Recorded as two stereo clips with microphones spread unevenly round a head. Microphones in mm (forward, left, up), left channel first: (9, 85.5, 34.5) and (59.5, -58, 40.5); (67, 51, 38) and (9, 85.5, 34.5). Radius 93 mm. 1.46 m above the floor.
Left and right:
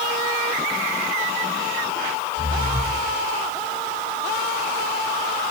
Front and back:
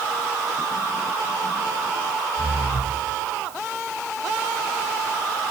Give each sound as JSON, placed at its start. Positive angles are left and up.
{"t": 2.4, "sound": "breathing", "azimuth_deg": -50, "distance_m": 1.8}